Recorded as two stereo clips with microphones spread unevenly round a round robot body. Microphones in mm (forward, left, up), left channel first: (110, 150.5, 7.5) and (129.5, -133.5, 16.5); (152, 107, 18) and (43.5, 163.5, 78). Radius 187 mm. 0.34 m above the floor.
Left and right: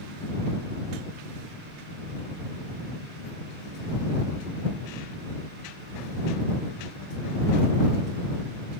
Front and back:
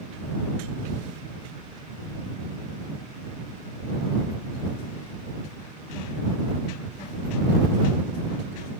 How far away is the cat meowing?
No cat meowing in this recording.